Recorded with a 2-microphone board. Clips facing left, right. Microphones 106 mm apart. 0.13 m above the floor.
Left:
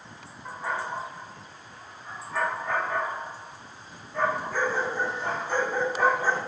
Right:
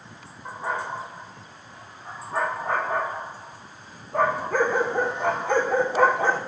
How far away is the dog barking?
About 4.5 m.